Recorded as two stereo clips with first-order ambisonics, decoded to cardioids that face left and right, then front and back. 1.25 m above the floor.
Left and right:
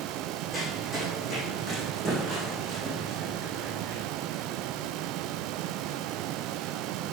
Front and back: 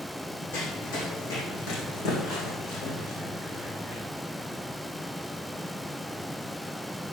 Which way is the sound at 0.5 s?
10° right.